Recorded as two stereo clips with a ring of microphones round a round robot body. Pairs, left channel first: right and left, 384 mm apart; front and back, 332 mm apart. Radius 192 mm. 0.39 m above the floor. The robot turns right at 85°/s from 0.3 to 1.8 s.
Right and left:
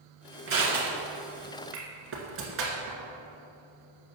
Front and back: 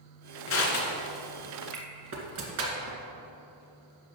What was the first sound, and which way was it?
Crushing, 35° left.